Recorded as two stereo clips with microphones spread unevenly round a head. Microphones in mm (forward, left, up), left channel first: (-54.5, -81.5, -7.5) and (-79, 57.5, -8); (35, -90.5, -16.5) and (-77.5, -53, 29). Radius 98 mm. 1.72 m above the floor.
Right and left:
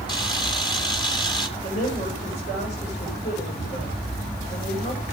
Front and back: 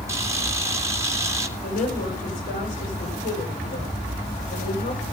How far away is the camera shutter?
About 2.5 m.